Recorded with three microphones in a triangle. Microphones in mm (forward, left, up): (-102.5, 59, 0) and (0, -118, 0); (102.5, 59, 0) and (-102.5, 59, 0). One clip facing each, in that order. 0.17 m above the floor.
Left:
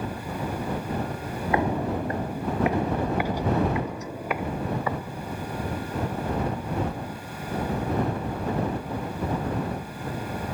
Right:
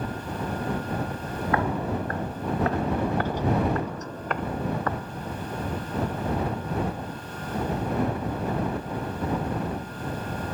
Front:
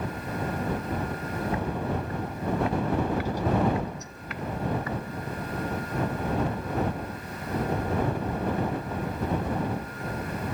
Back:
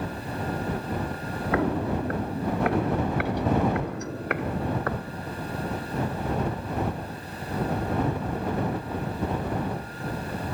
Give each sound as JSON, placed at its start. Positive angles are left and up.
{"t": 1.5, "sound": "footsteps", "azimuth_deg": -170}